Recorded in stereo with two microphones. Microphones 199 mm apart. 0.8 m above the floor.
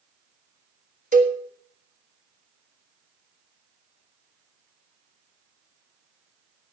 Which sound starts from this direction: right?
A cowbell, at 1.1 s.